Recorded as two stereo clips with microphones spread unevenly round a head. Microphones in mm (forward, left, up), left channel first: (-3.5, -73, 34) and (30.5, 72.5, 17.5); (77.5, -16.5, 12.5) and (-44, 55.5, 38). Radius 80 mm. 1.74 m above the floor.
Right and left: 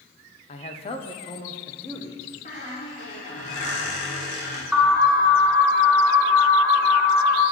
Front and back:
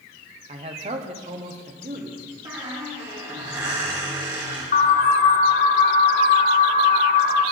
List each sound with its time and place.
0.5 s a man speaking: 155° right, 0.9 m; by 2.4 s 165° right, 2.0 m
2.5 s a squeak: 145° right, 3 m
4.7 s an alarm: 15° right, 3.5 m